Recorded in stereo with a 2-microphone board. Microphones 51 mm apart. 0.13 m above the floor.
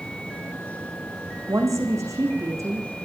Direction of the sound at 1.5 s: 80° right.